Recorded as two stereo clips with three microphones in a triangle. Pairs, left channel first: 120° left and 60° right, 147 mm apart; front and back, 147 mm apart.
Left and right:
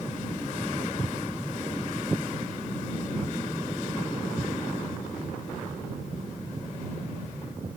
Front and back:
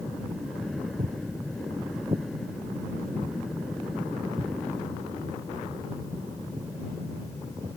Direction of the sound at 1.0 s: 160° right.